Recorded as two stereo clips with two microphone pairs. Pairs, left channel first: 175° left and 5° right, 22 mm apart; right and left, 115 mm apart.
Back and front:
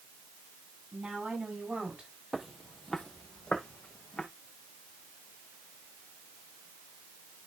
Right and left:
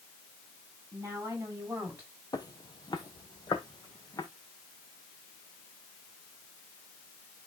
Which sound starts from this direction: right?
Footsteps, at 2.3 s.